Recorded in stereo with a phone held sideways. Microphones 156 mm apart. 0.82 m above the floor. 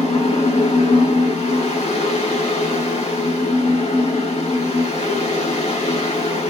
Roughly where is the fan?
Left.